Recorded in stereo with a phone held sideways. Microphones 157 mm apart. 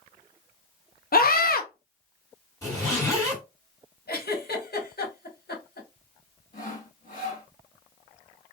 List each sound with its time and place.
1.1 s a scream: 70° left (ahead or behind), 0.7 m
2.6 s a zipper: 15° left (ahead or behind), 1.8 m
4.1 s a giggle: 80° left, 1.0 m
6.5 s sawing: 55° left (ahead or behind), 1.4 m